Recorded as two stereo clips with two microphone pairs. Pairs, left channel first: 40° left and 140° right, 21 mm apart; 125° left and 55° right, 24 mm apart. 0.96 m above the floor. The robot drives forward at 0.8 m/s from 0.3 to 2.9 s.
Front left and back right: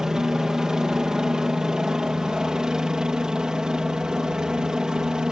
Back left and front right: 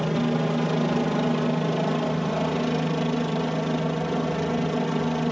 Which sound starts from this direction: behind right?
A helicopter, at 0.0 s.